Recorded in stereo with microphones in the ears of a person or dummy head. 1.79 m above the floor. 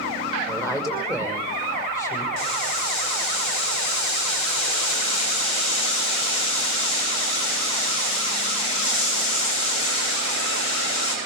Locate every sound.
0.5 s a woman speaking: 15° left (ahead or behind), 5 m
2.4 s boiling: 85° left, 9.5 m